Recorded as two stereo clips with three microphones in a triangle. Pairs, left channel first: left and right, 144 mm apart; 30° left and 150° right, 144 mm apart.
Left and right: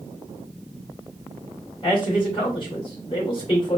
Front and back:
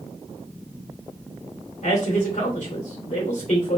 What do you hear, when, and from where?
1.8 s a man speaking: 45° left, 2.5 m